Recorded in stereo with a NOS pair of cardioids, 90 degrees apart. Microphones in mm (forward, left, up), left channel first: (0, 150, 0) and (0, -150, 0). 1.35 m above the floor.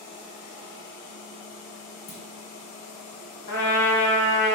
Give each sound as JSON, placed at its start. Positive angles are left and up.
{"t": 2.1, "sound": "a clunk", "azimuth_deg": 65, "distance_m": 1.6}
{"t": 3.5, "sound": "a trumpet", "azimuth_deg": 65, "distance_m": 1.8}